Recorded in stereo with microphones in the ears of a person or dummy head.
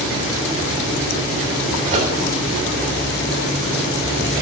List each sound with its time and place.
1.9 s a microwave: 40° right (ahead or behind), 3.5 m